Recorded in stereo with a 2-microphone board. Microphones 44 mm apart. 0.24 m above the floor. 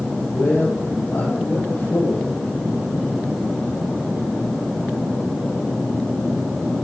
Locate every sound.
0.3 s a man speaking: 80° left, 5.5 m